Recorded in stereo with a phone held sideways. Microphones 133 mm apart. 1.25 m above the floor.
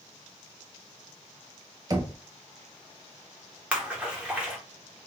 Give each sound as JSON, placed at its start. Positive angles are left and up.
{"t": 1.9, "sound": "knocking", "side_deg": -30, "distance_m": 0.6}
{"t": 3.7, "sound": "a splash", "side_deg": -10, "distance_m": 1.0}